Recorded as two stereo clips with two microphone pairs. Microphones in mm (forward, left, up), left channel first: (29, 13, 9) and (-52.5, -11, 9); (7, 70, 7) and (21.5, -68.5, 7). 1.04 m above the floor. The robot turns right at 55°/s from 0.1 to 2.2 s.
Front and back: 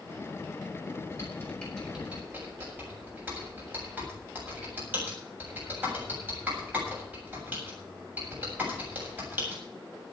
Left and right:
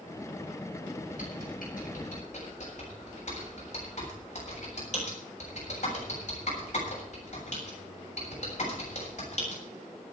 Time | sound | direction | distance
1.1 | typing on a keyboard | 65° left | 7.5 m